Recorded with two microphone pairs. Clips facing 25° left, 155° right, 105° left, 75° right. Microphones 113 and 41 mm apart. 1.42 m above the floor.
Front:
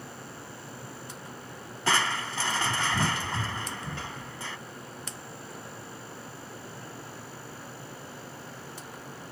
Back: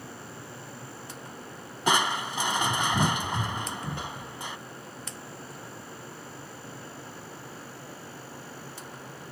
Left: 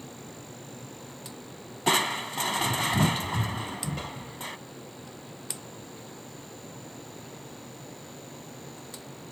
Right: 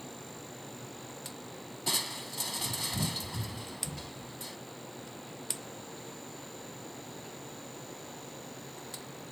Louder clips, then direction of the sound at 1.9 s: Back 2 dB, left 11 dB; 130° left.